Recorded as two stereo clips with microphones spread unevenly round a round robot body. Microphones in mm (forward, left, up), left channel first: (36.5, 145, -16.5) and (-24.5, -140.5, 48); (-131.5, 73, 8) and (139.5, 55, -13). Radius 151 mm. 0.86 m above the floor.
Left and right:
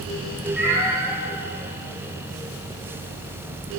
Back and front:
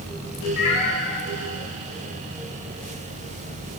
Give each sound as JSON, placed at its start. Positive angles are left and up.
{"t": 0.6, "sound": "a cat meowing", "azimuth_deg": 175, "distance_m": 1.1}